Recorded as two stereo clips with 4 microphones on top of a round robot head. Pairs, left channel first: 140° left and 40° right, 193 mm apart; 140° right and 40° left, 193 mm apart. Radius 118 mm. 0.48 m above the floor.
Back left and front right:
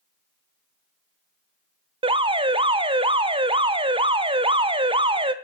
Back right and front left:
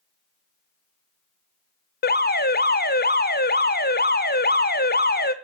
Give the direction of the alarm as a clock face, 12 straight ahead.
3 o'clock.